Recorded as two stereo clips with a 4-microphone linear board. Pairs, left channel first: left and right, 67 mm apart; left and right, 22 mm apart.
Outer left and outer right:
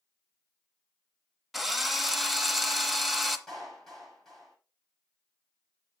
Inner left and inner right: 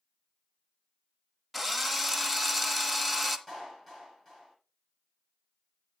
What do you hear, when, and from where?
1.5 s a drill: centre (ahead or behind), 1.0 m
3.5 s a clap: 5° left (ahead or behind), 8.5 m